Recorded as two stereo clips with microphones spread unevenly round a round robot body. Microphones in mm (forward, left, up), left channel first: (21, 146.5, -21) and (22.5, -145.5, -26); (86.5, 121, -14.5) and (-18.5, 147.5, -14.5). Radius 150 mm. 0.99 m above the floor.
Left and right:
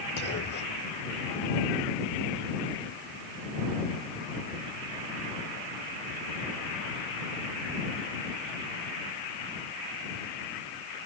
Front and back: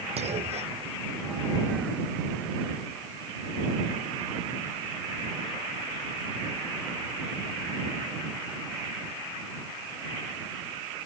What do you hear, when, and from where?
0.2 s a clunk: 150° left